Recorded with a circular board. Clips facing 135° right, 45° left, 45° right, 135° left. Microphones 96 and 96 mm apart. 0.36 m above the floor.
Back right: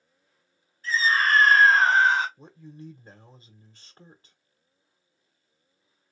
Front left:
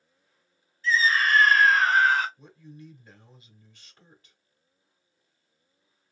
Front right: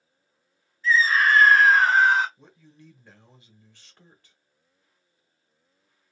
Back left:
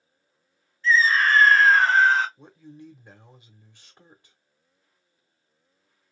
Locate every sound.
0.8 s a scream: 125° right, 2.0 m; by 2.3 s 100° right, 1.5 m
2.4 s a man speaking: 160° right, 1.0 m